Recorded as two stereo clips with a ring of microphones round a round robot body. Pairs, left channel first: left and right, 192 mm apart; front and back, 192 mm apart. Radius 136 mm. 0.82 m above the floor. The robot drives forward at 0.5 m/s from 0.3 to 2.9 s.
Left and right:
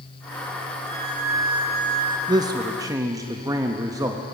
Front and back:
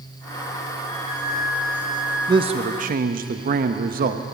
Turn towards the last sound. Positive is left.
turn(degrees=-160)